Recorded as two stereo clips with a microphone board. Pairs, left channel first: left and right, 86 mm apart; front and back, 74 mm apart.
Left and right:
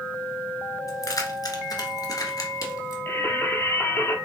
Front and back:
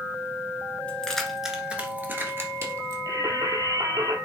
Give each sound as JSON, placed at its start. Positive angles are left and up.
{"t": 0.9, "sound": "keys jangling", "azimuth_deg": 70, "distance_m": 1.5}
{"t": 3.1, "sound": "singing", "azimuth_deg": 150, "distance_m": 1.4}